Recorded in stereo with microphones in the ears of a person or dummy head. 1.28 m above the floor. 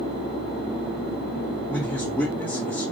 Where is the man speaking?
5° left (ahead or behind), 0.7 m.